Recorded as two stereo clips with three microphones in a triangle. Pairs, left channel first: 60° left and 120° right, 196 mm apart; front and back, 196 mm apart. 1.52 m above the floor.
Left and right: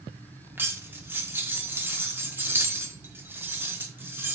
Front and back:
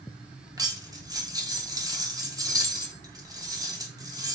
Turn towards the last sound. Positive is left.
turn(degrees=-175)